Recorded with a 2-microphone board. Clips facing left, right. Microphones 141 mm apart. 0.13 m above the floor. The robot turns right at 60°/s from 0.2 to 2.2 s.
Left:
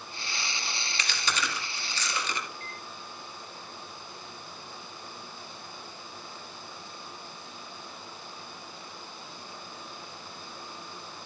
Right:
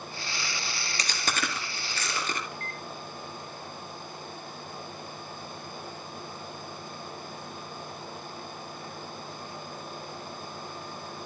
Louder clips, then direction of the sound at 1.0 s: Right 1 dB; 40° right (ahead or behind).